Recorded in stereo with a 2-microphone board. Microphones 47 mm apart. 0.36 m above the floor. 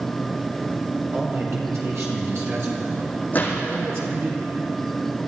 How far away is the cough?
No cough in this recording.